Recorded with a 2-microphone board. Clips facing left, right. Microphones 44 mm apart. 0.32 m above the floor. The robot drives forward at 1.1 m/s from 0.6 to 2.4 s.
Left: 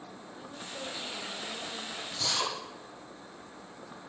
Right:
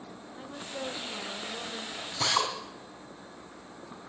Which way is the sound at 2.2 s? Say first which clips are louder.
Right 5 dB; 50° right (ahead or behind).